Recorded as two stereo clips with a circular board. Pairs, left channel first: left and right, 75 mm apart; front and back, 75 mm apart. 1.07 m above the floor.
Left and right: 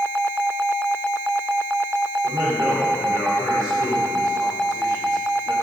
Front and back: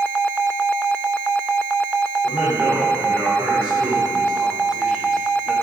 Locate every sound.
2.2 s a man speaking: 115° right, 4 m; by 5.5 s 95° right, 1.9 m